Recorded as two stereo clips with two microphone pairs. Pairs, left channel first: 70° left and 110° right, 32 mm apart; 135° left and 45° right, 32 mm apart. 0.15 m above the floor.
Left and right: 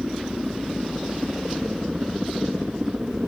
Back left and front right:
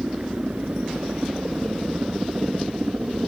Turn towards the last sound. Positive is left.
turn(degrees=-45)